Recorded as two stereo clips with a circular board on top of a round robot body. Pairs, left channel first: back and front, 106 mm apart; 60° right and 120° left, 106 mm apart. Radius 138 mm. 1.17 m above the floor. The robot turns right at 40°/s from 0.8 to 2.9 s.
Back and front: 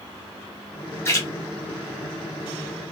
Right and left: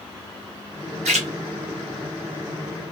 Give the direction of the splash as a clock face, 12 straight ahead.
8 o'clock.